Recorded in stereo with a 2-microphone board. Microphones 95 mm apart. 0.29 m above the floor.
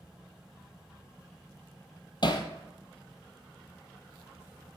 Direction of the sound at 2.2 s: 50° left (ahead or behind).